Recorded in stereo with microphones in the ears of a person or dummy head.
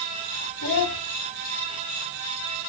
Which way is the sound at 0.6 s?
60° left (ahead or behind).